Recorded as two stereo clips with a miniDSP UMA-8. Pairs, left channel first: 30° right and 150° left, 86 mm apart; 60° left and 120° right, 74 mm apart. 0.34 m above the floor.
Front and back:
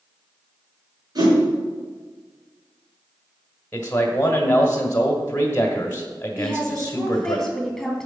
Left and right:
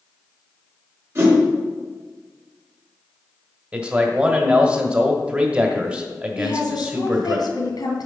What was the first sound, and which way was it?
A whoosh, 175° right.